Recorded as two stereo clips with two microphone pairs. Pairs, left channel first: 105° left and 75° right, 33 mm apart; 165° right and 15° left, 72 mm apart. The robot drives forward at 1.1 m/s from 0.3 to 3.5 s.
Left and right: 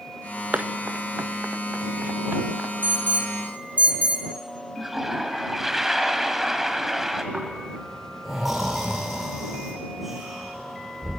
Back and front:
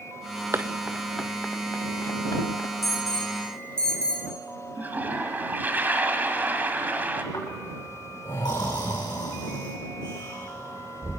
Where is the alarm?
75° right, 3.5 m; by 4.2 s 95° right, 3.5 m.